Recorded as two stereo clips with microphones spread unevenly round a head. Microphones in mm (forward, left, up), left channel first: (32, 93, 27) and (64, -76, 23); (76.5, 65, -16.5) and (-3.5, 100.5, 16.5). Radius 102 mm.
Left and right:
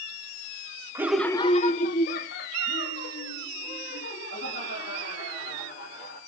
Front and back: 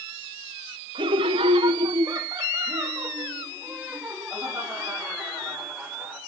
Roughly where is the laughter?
Behind right.